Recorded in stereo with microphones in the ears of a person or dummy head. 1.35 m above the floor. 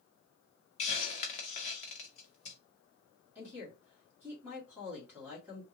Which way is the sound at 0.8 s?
30° left (ahead or behind).